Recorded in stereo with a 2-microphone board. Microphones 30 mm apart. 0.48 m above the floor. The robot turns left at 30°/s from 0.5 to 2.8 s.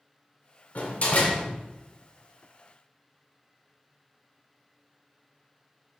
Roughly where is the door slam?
Left.